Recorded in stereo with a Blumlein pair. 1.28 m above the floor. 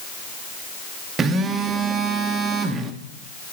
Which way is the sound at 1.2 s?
20° right.